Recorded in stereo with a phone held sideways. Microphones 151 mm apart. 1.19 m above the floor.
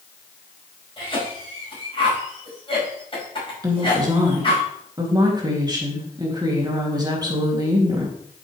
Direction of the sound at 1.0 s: 35° left (ahead or behind).